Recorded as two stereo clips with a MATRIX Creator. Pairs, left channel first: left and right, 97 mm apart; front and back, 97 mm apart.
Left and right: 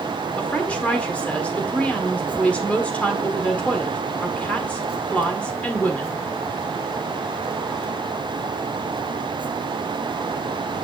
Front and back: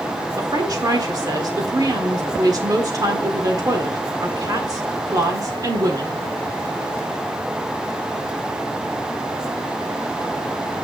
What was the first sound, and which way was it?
A woman speaking, 160° left.